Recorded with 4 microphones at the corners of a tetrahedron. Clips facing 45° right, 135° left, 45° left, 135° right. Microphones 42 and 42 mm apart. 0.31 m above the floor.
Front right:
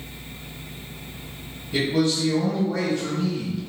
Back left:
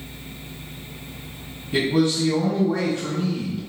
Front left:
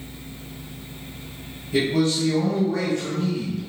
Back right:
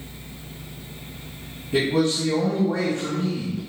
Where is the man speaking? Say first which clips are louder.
Back left 2 dB, even; 165° right, 1.5 m.